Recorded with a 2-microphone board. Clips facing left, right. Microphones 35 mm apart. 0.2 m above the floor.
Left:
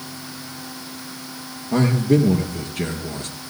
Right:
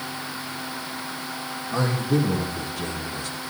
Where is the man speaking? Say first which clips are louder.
Left 6 dB; 70° left (ahead or behind), 5 m.